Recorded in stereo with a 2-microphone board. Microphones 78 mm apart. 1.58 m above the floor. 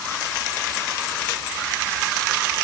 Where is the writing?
I don't hear writing.